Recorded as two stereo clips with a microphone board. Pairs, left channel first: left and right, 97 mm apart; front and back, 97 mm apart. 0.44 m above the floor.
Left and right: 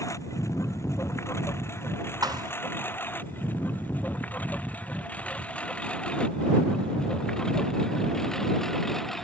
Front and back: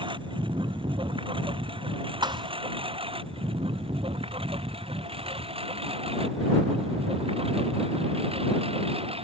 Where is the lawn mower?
150° left; by 9.3 s 175° left.